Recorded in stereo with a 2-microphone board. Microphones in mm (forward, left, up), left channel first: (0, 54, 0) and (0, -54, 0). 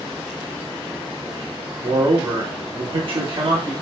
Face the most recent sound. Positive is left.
turn(degrees=-55)  # may be behind; listen again after turning